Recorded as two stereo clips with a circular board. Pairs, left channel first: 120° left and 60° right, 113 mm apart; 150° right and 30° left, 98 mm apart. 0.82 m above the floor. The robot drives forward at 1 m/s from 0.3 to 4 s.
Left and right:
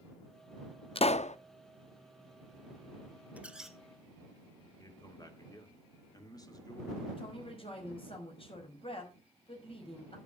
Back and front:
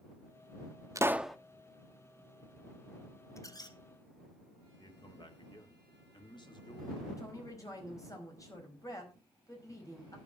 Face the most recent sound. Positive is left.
turn(degrees=155)